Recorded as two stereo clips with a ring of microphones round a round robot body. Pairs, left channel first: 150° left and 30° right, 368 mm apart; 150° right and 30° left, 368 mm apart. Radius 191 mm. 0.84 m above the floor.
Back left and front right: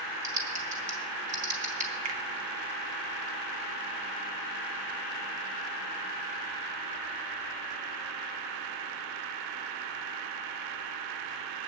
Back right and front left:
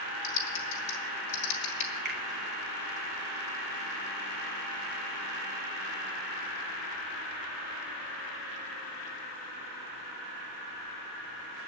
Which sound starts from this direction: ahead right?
A finger snap, at 2.0 s.